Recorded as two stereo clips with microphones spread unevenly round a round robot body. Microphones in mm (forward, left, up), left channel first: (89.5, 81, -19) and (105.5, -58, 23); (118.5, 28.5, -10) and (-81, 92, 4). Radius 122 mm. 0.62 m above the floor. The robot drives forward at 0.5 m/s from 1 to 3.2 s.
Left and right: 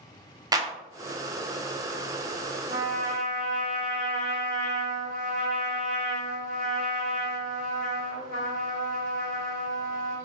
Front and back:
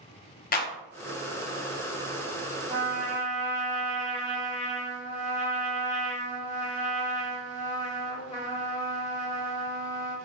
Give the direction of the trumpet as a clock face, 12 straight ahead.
4 o'clock.